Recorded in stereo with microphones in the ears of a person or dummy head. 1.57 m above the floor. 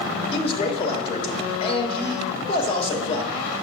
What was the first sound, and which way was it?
A man speaking, 35° left (ahead or behind).